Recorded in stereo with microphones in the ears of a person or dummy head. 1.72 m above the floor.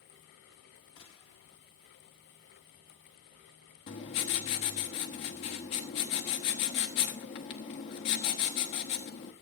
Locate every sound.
1.0 s a gunshot: 25° left (ahead or behind), 1.5 m
3.9 s writing: 30° left (ahead or behind), 1.3 m